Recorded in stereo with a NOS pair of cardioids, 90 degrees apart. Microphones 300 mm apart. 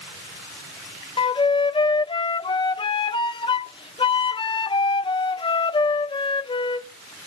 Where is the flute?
15° left, 0.7 m.